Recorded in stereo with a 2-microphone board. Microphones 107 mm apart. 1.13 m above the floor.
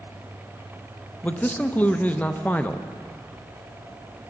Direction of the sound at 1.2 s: 15° left (ahead or behind).